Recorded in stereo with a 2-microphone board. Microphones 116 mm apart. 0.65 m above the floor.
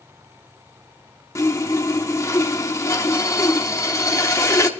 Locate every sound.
1.4 s sawing: 25° left (ahead or behind), 1.1 m